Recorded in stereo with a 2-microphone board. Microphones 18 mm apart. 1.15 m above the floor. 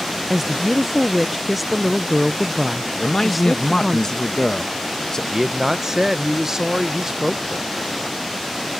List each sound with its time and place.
0.3 s a woman speaking: 5° right (ahead or behind)
3.0 s a man speaking: 40° left (ahead or behind)
5.3 s a man speaking: 30° right (ahead or behind)